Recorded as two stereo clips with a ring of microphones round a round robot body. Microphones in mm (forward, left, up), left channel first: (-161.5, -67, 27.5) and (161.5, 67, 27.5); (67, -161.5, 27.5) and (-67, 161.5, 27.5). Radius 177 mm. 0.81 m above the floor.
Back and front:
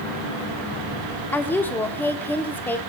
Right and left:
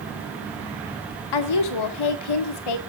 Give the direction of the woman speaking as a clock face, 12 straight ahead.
2 o'clock.